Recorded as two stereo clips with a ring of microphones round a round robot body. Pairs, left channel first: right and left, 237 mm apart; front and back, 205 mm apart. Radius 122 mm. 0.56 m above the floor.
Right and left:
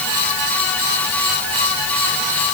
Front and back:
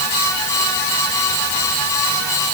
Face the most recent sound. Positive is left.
No sound to turn to.